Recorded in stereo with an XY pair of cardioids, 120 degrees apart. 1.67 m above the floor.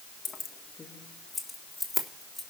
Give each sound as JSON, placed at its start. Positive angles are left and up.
{"t": 0.2, "sound": "keys jangling", "azimuth_deg": 40, "distance_m": 1.6}